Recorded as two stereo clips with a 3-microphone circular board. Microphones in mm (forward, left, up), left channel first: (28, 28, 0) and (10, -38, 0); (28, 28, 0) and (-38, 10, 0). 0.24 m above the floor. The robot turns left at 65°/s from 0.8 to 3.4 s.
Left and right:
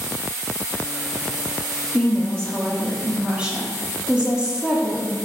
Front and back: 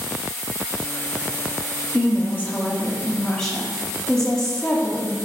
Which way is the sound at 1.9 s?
40° left.